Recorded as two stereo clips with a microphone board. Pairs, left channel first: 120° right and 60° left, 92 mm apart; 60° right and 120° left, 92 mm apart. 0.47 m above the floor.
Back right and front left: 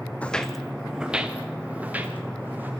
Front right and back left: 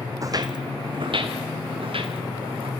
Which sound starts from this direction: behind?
Footsteps, at 0.2 s.